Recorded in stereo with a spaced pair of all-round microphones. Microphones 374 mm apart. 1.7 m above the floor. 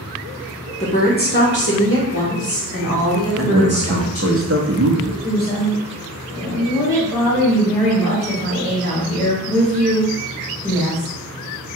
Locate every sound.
0.8 s a woman speaking: 20° left (ahead or behind), 0.7 m; by 4.4 s 40° left (ahead or behind), 2.5 m
3.4 s a man speaking: 35° right (ahead or behind), 0.6 m
5.2 s a woman speaking: 15° left (ahead or behind), 2.0 m